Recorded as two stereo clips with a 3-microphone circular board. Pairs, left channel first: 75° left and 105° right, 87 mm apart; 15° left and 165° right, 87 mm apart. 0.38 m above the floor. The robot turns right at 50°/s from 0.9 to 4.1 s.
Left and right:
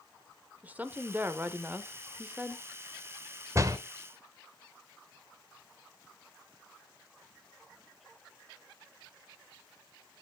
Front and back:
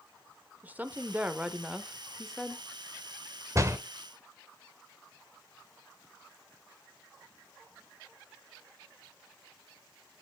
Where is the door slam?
135° right, 0.8 m; by 3.8 s 125° right, 0.8 m.